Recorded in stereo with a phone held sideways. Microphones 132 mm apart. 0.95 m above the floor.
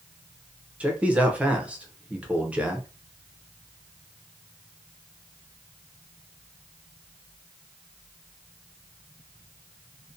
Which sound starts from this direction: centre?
A man speaking, at 0.8 s.